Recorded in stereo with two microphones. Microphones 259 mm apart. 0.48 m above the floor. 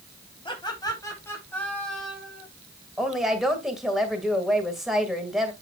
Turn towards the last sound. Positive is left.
turn(degrees=0)  # may be behind; listen again after turning